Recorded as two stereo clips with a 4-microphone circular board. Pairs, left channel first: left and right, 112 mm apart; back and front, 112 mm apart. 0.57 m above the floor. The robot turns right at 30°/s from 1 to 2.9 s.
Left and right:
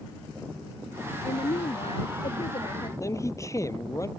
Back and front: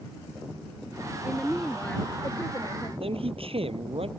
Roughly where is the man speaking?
Ahead left.